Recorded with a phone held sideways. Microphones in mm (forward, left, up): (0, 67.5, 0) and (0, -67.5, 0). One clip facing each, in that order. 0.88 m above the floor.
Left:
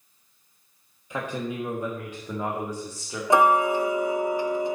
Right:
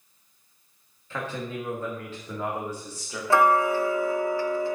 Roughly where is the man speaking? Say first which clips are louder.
Left 2 dB; centre.